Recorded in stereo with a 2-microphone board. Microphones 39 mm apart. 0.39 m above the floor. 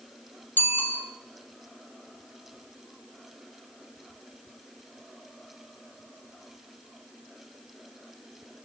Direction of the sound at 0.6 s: 55° left (ahead or behind).